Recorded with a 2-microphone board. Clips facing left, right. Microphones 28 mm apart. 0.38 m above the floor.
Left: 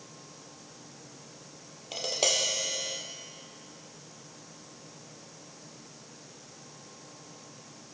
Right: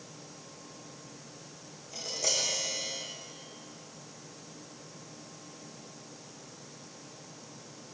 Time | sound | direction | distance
1.9 | tapping | 70° left (ahead or behind) | 3 m